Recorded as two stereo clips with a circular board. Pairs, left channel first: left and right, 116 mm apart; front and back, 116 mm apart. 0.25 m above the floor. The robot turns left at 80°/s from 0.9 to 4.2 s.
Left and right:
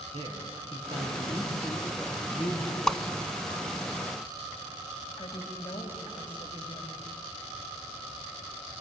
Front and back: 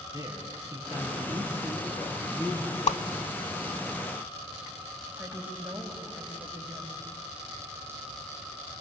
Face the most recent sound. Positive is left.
turn(degrees=105)